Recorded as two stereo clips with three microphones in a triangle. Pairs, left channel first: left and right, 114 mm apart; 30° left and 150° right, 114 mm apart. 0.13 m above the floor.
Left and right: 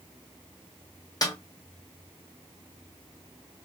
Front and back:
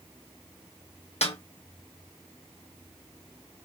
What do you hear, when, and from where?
1.2 s a snare drum: 40° left, 1.0 m